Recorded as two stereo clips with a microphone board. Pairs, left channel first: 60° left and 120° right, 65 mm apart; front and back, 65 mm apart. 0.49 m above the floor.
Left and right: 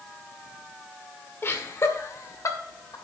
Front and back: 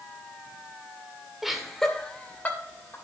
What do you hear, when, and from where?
1.4 s laughter: 95° left, 1.9 m; by 3.0 s 55° left, 2.5 m